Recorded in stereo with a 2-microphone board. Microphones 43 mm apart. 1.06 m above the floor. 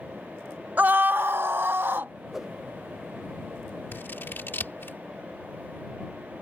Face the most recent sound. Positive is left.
turn(degrees=65)  # may be behind; listen again after turning